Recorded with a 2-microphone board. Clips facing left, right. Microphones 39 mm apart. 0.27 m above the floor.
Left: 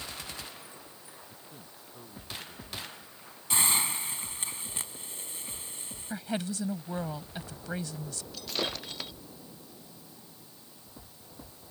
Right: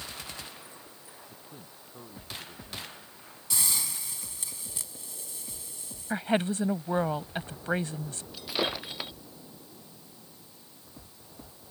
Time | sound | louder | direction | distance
1.3 | a man speaking | right 1 dB | 10° right (ahead or behind) | ?
3.5 | a hiss | left 5 dB | 45° left (ahead or behind) | ?
6.1 | a woman speaking | right 7 dB | 40° right (ahead or behind) | ?
8.3 | breaking glass | right 3 dB | 15° right (ahead or behind) | ?